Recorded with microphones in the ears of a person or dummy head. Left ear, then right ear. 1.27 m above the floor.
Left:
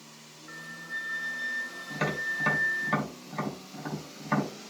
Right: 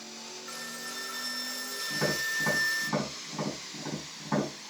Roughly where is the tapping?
Left.